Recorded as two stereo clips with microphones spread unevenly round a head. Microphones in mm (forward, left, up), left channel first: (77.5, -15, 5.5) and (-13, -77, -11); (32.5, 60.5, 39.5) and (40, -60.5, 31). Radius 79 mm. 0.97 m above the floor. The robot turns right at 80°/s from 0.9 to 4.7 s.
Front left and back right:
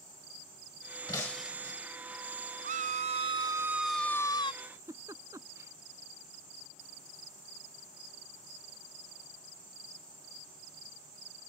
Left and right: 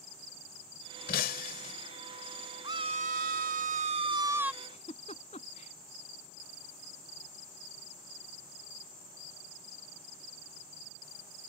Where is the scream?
155° right; by 4.5 s 5° right.